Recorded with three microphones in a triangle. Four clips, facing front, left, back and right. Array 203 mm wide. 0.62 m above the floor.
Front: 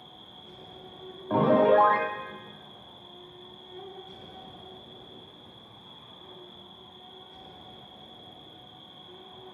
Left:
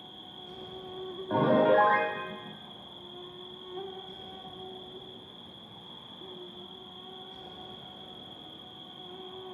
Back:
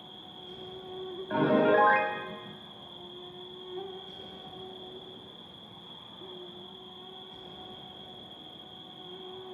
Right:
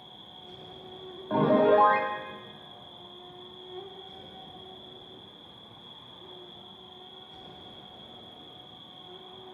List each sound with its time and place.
0.0 s an insect: 120° left, 0.8 m
1.3 s a piano: 5° right, 0.9 m